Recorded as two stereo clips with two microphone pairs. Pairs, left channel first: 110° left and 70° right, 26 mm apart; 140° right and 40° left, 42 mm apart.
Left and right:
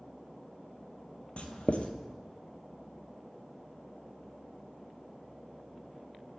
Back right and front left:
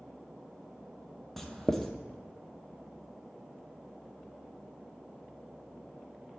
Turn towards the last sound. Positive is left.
turn(degrees=140)